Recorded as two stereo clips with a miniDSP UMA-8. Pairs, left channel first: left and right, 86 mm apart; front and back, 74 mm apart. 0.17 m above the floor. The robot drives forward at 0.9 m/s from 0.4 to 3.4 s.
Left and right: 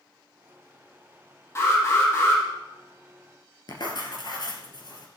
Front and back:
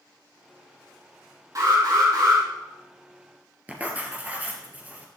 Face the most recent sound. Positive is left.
turn(degrees=115)